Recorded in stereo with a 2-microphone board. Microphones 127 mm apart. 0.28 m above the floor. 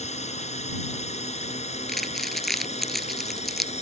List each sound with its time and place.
0.0 s a drone: 60° left (ahead or behind)
1.9 s crumpling: centre (ahead or behind)